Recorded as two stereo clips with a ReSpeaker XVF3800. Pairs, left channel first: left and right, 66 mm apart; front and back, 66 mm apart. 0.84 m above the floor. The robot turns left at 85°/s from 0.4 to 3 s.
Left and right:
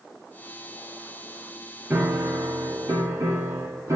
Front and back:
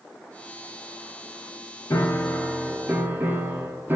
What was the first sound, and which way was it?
A piano, 30° right.